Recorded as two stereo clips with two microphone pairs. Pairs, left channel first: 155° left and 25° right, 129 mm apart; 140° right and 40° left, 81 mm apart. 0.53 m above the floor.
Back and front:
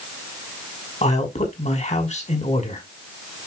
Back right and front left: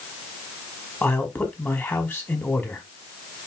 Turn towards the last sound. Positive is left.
turn(degrees=160)